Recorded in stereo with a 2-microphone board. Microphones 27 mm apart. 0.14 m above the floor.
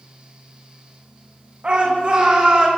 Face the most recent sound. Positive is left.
turn(degrees=-30)  # may be behind; listen again after turning